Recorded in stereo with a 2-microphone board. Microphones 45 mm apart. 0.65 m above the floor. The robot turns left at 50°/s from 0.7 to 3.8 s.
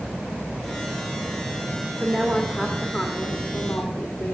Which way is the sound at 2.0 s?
145° right.